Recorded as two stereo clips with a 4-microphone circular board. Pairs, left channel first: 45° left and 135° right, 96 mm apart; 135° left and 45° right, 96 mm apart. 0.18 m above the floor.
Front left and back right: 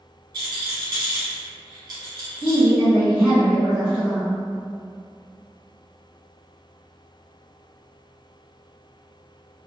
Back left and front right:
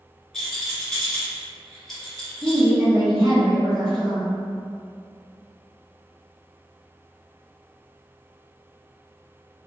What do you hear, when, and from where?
0.3 s a rattle: 135° right, 1.2 m
2.4 s a woman speaking: 55° right, 1.4 m